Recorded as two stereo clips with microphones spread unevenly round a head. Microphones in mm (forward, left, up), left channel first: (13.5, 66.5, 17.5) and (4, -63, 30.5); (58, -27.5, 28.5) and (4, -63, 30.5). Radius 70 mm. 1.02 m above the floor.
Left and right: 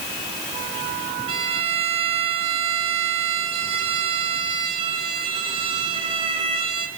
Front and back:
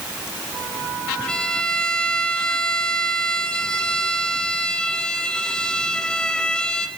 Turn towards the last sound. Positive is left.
turn(degrees=-45)